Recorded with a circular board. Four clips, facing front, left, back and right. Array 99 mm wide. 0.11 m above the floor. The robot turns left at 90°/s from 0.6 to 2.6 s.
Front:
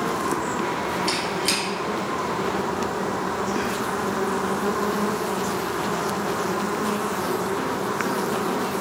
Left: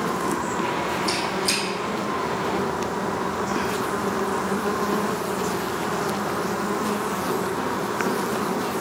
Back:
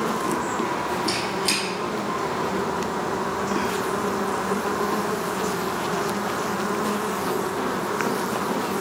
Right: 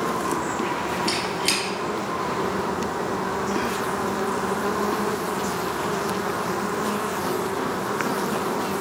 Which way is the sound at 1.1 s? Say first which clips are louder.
Left 1 dB, even; 40° right.